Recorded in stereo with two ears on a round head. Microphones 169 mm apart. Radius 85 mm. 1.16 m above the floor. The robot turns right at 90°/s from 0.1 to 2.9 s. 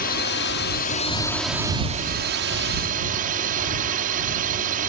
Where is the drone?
55° left; by 4.9 s 50° right.